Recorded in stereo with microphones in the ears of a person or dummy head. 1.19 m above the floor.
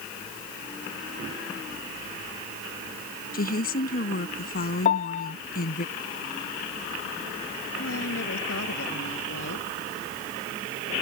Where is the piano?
50° left (ahead or behind).